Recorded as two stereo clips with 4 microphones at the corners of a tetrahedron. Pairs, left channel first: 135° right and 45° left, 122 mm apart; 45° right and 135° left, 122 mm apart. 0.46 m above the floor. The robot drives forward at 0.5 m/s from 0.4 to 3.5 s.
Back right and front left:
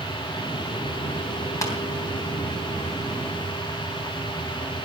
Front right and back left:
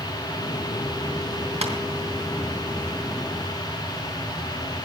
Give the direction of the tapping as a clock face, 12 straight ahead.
7 o'clock.